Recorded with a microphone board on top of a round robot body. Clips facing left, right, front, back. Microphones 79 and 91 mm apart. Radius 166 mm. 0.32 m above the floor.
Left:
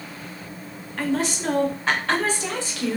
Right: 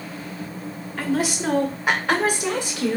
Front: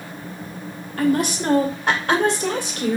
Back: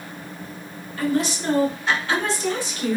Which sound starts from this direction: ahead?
A woman speaking, at 1.0 s.